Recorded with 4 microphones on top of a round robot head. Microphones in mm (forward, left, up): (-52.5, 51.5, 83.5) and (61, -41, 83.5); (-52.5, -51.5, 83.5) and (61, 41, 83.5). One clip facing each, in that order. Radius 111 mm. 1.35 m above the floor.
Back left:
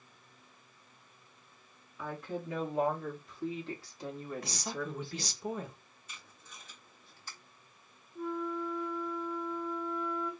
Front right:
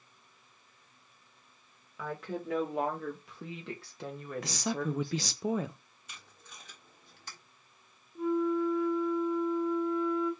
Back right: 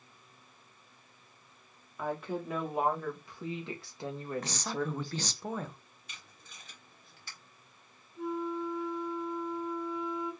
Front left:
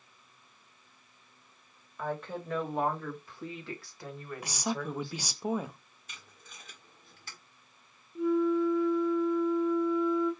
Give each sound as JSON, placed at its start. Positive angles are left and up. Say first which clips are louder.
{"t": 2.0, "sound": "a woman speaking", "louder": "front right 1 dB, back right 1 dB", "azimuth_deg": -60, "distance_m": 2.5}
{"t": 4.4, "sound": "a woman speaking", "louder": "front right 5 dB, front left 1 dB", "azimuth_deg": -40, "distance_m": 0.7}
{"t": 6.1, "sound": "tape being pulled", "louder": "front right 1 dB, front left 2 dB", "azimuth_deg": -10, "distance_m": 1.4}
{"t": 8.2, "sound": "a flute", "louder": "front right 7 dB, front left 9 dB", "azimuth_deg": 35, "distance_m": 1.3}